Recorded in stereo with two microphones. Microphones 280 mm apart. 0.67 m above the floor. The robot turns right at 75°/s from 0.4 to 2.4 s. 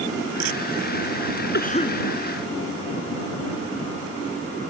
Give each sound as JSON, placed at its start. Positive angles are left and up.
{"t": 1.5, "sound": "a cough", "azimuth_deg": 140}